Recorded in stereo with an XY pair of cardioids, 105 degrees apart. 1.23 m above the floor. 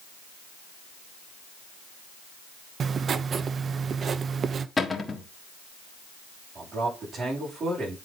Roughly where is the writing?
Ahead right.